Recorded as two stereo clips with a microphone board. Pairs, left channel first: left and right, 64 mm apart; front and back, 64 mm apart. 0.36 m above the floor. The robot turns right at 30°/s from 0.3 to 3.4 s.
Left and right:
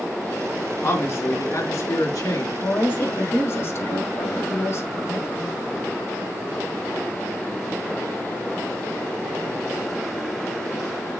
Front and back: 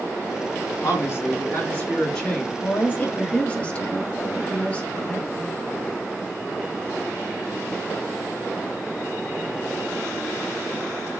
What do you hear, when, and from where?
0.8 s a man speaking: 35° left, 3 m; by 2.5 s 85° left, 3 m
2.6 s a woman speaking: 40° left, 2 m; by 5.5 s 65° left, 2 m